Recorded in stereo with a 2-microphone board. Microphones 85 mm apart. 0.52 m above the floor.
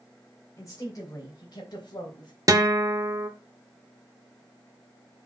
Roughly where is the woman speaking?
Left.